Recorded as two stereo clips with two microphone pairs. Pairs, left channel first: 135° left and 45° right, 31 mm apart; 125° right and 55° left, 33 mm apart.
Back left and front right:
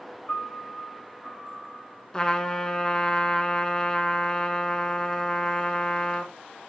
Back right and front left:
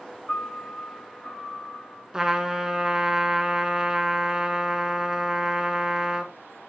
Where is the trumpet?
110° left, 0.6 m.